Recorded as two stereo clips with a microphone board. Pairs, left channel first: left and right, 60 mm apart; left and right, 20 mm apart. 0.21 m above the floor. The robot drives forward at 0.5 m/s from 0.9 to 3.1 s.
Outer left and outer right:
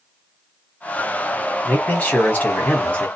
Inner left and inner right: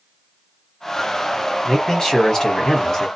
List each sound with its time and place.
1.6 s a man speaking: 30° left (ahead or behind), 1.1 m